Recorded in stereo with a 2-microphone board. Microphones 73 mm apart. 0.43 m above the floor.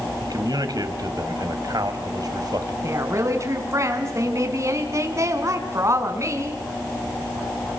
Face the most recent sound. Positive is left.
turn(degrees=-45)  # may be behind; listen again after turning